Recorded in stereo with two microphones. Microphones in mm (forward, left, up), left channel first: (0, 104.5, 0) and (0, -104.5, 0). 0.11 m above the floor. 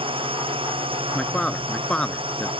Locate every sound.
0.0 s a drone: 25° right (ahead or behind)
1.1 s a man speaking: 5° left (ahead or behind)